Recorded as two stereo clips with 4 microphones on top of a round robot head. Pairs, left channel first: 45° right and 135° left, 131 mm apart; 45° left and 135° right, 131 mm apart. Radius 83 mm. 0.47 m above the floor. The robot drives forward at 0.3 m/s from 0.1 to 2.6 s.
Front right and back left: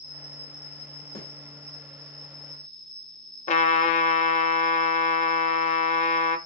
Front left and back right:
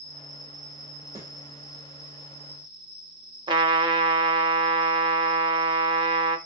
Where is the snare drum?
75° right, 2.5 m.